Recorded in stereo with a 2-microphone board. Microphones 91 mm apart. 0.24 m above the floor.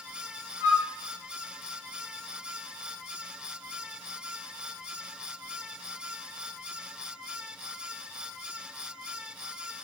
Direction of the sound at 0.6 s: 30° right (ahead or behind).